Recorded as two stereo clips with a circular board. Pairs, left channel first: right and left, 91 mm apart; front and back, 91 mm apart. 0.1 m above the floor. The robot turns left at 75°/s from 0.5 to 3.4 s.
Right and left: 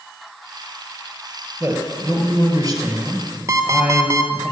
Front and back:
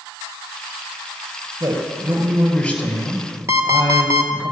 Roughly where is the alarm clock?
Behind left.